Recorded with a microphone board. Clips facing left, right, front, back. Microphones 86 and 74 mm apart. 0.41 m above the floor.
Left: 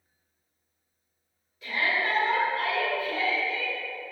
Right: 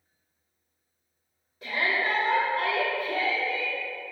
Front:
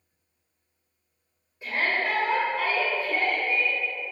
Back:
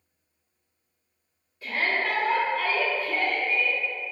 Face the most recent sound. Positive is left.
turn(degrees=-65)